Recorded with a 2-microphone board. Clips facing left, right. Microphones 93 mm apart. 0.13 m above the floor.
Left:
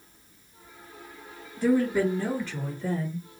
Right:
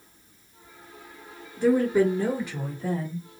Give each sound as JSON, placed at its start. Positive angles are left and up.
{"t": 1.6, "sound": "a woman speaking", "side_deg": -20, "distance_m": 1.8}